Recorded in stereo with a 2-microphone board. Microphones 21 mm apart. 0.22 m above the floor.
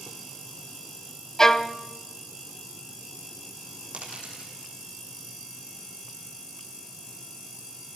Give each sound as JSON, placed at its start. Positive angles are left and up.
{"t": 1.4, "sound": "a violin", "side_deg": 25, "distance_m": 0.7}
{"t": 3.9, "sound": "a dropped coin", "side_deg": -85, "distance_m": 5.5}